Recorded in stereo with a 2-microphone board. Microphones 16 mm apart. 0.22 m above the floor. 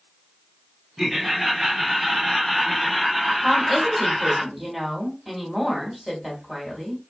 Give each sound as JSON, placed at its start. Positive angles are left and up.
{"t": 1.0, "sound": "laughter", "side_deg": -35, "distance_m": 1.5}
{"t": 3.4, "sound": "a woman speaking", "side_deg": -25, "distance_m": 1.5}